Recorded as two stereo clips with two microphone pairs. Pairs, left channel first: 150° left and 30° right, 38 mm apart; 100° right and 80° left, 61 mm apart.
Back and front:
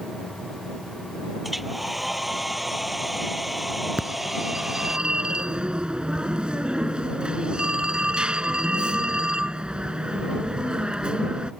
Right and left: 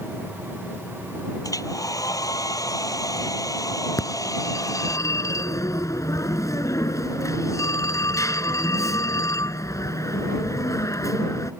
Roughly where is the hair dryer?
Behind right.